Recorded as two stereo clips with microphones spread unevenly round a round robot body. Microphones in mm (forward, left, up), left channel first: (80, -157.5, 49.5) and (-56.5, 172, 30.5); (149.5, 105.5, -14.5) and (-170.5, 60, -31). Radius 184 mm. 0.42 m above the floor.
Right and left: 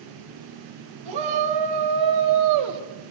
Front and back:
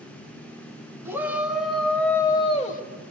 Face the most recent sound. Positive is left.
turn(degrees=70)